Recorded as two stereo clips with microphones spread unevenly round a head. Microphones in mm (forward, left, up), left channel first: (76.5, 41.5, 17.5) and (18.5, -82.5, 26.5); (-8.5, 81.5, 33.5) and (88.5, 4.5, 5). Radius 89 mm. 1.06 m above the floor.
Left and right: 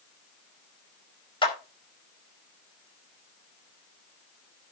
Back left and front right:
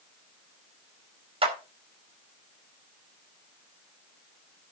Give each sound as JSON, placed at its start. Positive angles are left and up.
{"t": 1.4, "sound": "a clap", "azimuth_deg": 10, "distance_m": 4.5}